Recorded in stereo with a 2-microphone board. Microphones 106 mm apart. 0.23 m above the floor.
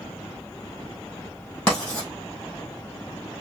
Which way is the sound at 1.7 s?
10° left (ahead or behind).